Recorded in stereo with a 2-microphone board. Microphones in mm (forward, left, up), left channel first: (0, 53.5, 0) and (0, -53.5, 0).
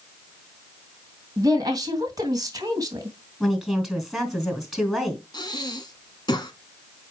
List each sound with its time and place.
1.4 s a woman speaking: 35° right (ahead or behind), 2.5 m
3.4 s a woman speaking: centre (ahead or behind), 3.5 m
5.3 s breathing: 40° left (ahead or behind), 1.5 m